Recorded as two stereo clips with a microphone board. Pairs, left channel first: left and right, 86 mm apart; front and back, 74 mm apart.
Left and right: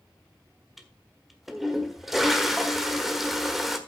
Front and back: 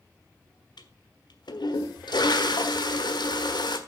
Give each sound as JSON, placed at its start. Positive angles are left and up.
{"t": 0.8, "sound": "a toilet flushing", "azimuth_deg": 0, "distance_m": 1.4}